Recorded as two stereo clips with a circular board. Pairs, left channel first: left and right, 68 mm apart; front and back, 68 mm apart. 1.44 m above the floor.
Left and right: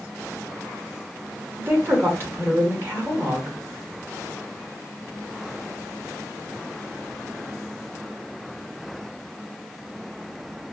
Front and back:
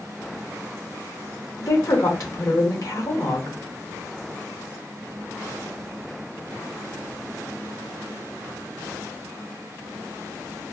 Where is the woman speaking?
35° right, 1.6 m.